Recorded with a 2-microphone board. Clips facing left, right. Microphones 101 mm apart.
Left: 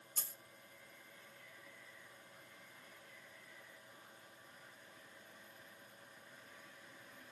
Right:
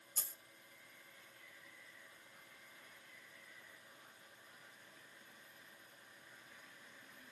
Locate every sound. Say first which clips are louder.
0.2 s a dropped coin: even; 65° left (ahead or behind), 0.9 m